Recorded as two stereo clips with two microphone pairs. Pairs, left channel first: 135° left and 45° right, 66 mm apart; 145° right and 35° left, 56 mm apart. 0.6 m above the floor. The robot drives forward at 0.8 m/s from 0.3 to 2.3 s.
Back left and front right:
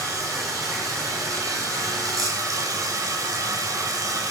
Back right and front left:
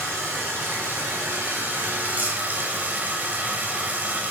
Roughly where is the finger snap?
I don't hear a finger snap.